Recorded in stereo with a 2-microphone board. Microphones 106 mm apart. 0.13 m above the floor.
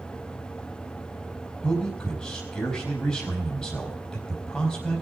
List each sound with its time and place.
1.6 s a man speaking: 5° left (ahead or behind), 4 m